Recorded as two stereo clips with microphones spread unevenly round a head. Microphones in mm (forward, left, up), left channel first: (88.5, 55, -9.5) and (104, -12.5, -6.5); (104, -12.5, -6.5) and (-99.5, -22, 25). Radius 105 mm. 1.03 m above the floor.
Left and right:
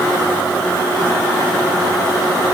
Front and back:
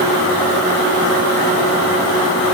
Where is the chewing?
No chewing in this recording.